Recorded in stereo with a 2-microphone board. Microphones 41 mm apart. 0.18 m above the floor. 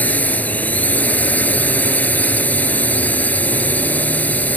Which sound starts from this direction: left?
A drone, at 0.0 s.